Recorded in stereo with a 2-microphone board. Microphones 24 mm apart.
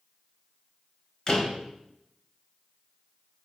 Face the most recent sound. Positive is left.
turn(degrees=40)  # may be behind; listen again after turning